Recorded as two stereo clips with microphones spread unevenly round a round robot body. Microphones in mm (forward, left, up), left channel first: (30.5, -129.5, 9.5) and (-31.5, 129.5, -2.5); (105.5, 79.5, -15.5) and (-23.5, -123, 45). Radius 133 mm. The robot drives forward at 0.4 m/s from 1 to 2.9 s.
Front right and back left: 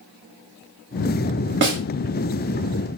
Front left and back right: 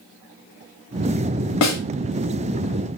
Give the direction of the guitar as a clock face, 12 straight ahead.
No guitar in this recording.